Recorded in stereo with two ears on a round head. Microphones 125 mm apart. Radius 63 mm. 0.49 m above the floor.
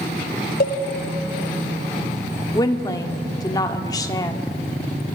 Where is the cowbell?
70° left (ahead or behind), 1.8 m.